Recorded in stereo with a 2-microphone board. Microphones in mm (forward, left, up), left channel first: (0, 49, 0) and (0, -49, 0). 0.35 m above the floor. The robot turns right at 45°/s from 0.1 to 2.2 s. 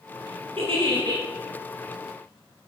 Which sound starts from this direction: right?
A giggle, at 0.6 s.